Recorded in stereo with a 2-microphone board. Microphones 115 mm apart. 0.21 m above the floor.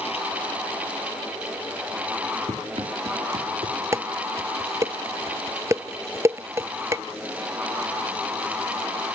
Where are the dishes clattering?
25° right (ahead or behind).